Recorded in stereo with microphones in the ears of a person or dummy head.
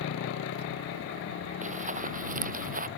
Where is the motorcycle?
80° left; by 3.0 s 75° left (ahead or behind).